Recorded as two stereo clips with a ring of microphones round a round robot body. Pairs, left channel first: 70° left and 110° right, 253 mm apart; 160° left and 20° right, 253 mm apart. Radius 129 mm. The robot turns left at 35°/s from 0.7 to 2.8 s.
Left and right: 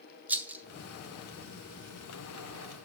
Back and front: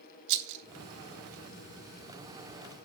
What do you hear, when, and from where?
0.3 s a rattle: 30° right, 0.8 m